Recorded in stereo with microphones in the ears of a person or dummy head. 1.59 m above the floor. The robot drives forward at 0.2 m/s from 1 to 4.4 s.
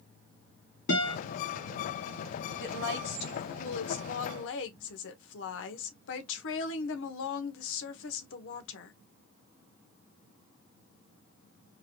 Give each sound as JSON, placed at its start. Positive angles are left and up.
{"t": 0.9, "sound": "a guitar", "side_deg": 60, "distance_m": 1.9}
{"t": 2.6, "sound": "a woman speaking", "side_deg": 65, "distance_m": 1.3}